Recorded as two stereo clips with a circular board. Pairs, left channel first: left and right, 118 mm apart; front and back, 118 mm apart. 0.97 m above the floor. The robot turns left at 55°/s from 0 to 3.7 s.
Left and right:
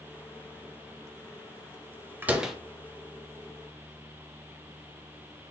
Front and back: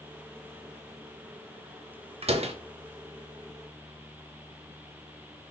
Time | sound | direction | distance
2.2 | a door slam | 160° right | 0.7 m